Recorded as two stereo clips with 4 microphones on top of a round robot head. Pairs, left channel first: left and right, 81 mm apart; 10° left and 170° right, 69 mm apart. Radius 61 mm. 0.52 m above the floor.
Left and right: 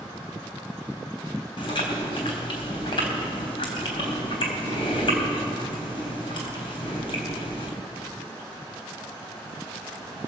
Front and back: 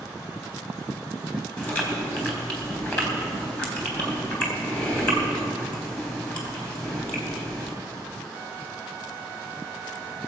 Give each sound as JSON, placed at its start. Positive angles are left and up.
{"t": 1.6, "sound": "chewing", "azimuth_deg": 75, "distance_m": 3.5}